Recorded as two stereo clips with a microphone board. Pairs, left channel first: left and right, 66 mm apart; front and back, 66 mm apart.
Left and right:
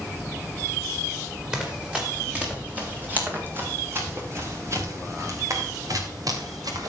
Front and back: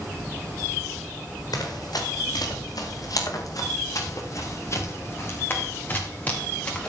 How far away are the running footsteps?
About 4.5 m.